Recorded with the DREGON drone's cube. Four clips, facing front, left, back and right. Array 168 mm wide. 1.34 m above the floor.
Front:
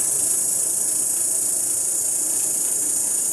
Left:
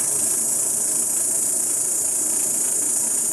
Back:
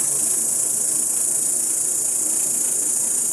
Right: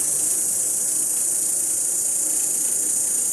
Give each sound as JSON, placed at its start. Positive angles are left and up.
{"t": 0.0, "sound": "an insect", "azimuth_deg": 115, "distance_m": 0.8}